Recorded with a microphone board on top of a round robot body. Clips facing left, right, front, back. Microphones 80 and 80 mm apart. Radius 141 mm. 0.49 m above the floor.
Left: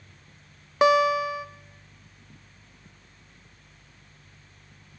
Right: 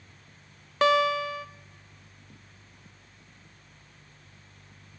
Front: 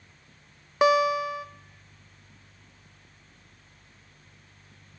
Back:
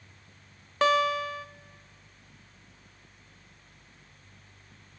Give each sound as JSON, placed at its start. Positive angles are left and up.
{"t": 0.8, "sound": "a guitar", "azimuth_deg": 45, "distance_m": 0.9}